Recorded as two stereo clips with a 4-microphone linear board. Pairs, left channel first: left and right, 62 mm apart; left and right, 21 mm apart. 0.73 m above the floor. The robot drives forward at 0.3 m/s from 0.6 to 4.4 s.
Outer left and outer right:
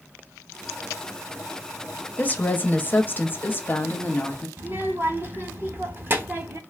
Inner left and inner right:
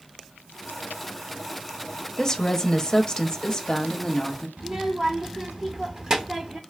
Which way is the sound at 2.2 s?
25° left (ahead or behind).